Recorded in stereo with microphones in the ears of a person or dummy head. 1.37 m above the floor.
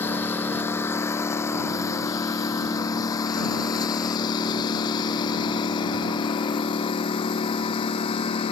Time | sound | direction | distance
0.0 | a lawn mower | 25° left (ahead or behind) | ?